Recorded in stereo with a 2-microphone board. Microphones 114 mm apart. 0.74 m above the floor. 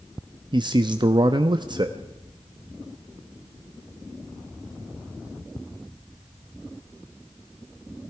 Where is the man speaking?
40° right (ahead or behind), 0.6 m.